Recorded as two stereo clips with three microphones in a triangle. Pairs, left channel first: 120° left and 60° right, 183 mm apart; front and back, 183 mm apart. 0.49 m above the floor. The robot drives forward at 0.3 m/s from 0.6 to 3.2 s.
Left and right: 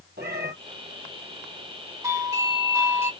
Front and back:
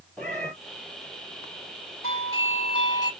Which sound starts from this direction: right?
A cat meowing, at 0.2 s.